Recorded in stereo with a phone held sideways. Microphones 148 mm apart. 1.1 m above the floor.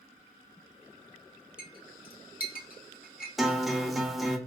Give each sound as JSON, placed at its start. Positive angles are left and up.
{"t": 1.6, "sound": "a clink", "side_deg": 65, "distance_m": 0.7}
{"t": 3.4, "sound": "a guitar", "side_deg": 0, "distance_m": 0.5}